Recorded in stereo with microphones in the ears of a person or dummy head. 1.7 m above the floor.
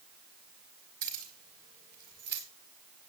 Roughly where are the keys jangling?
Right.